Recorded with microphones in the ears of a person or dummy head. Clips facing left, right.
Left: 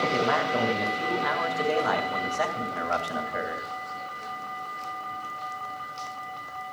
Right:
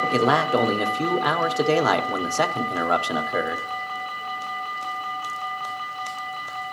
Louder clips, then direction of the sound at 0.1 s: Right 5 dB; 75° right (ahead or behind).